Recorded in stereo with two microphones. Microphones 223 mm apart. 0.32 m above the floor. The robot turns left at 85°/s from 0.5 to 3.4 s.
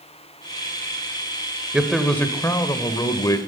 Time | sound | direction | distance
1.7 | a man speaking | 5° right (ahead or behind) | 0.8 m